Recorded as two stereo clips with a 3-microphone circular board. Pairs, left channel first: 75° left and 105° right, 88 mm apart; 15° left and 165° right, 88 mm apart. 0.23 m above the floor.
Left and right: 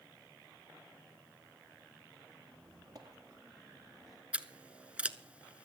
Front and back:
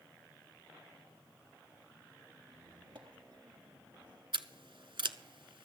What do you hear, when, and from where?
2.5 s a squeak: 150° right, 2 m
4.3 s scissors: straight behind, 0.6 m